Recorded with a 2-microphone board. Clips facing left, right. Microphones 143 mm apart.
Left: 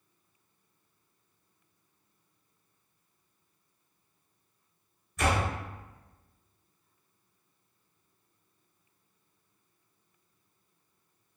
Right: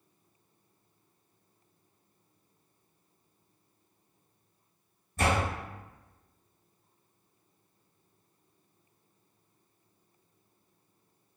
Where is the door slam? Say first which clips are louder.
Even; 30° right (ahead or behind), 1.1 m.